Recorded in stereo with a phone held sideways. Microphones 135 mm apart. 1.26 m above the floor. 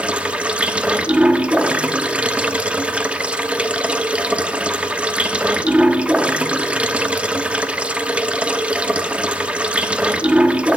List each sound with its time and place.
0.0 s running water: 10° right (ahead or behind), 0.8 m